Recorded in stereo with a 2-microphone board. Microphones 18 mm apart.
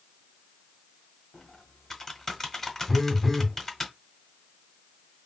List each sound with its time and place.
1.3 s typing on a keyboard: 25° left (ahead or behind), 0.7 m
2.9 s a phone buzzing: 20° left (ahead or behind), 0.6 m